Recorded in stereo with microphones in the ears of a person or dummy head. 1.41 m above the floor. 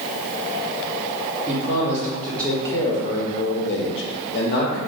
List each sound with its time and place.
1.5 s a man speaking: 15° right (ahead or behind), 1.2 m; by 4.8 s 50° left (ahead or behind), 1.1 m